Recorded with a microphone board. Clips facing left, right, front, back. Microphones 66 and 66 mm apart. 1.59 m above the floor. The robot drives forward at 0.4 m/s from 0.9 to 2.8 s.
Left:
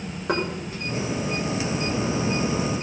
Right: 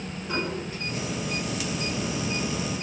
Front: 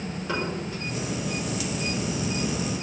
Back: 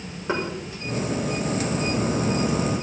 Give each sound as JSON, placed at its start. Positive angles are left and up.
{"t": 0.3, "sound": "knocking", "azimuth_deg": 120, "distance_m": 4.5}